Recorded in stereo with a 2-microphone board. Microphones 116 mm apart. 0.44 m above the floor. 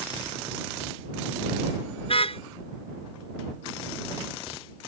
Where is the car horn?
55° left (ahead or behind).